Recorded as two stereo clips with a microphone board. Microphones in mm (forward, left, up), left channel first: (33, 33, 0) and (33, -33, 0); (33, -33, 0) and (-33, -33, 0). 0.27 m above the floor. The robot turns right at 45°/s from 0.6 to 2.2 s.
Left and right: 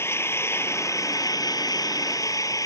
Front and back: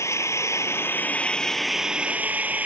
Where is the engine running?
40° left; by 2.7 s 115° left.